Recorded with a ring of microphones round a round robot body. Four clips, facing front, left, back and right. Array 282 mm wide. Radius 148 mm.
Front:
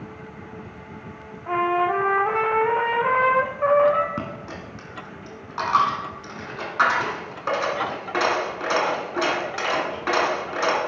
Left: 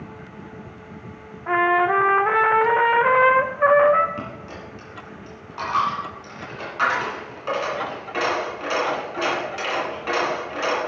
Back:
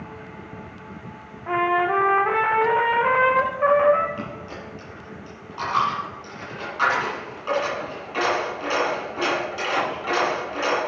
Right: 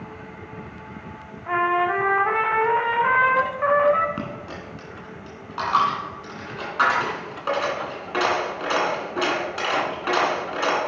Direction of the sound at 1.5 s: 100° left.